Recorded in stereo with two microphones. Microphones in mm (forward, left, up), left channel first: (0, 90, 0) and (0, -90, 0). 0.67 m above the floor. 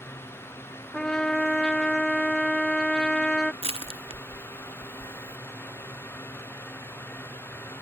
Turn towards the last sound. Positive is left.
turn(degrees=-30)  # may be behind; listen again after turning